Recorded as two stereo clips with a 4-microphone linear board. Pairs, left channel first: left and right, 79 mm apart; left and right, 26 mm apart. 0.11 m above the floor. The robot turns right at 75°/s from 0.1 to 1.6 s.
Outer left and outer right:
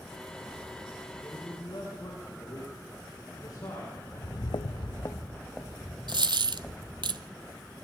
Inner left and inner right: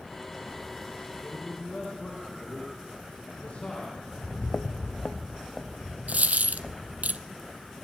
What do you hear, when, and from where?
1.2 s a man speaking: 25° left (ahead or behind), 5.5 m; by 4.0 s 55° left (ahead or behind), 5.5 m
4.1 s footsteps: 35° left (ahead or behind), 0.8 m; by 7.1 s 10° left (ahead or behind), 3 m
6.1 s a dropped coin: 75° right (ahead or behind), 0.7 m